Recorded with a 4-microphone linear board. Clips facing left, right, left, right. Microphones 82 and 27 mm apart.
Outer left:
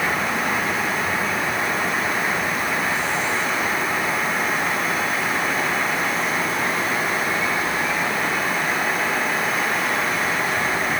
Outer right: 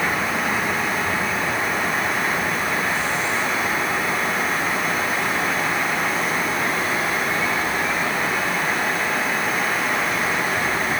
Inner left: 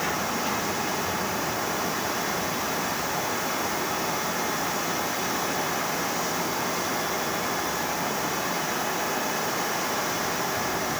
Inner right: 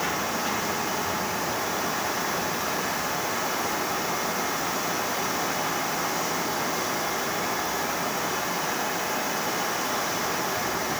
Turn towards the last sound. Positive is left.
No sound to turn to.